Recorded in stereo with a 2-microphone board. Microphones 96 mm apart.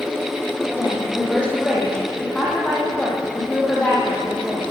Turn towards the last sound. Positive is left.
turn(degrees=10)  # may be behind; listen again after turning